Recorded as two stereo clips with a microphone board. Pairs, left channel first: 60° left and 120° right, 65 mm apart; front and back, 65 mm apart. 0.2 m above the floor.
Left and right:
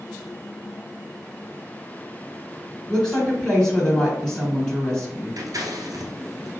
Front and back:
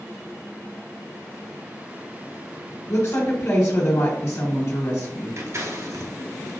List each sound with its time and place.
2.9 s a woman speaking: 20° right, 1.4 m
5.4 s scissors: 140° right, 1.2 m